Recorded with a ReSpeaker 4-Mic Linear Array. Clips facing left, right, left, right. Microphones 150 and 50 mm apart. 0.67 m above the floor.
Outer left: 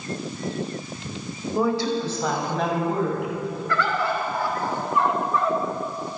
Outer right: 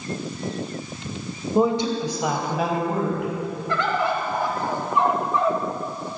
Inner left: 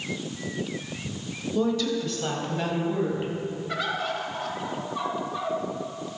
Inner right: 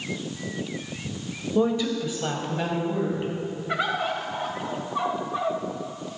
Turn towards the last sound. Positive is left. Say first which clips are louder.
# outer right 2 dB, inner right 4 dB
turn(degrees=-20)  # may be behind; listen again after turning